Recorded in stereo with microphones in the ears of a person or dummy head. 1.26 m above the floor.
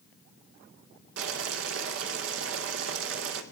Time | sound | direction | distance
1.2 | boiling | 70° right (ahead or behind) | 1.4 m